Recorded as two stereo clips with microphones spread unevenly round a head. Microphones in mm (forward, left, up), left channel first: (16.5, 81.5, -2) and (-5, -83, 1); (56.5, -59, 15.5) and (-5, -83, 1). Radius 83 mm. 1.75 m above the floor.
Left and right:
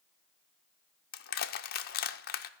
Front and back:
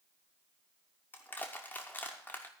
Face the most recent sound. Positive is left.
turn(degrees=80)